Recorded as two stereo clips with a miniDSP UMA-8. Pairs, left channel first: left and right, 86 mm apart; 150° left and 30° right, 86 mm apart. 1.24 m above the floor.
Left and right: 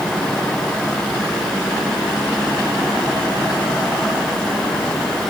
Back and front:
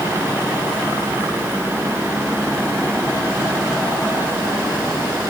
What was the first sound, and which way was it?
Only background noise.